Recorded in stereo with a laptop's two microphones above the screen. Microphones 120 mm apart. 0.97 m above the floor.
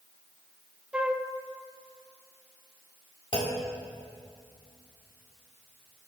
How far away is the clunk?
About 1.7 m.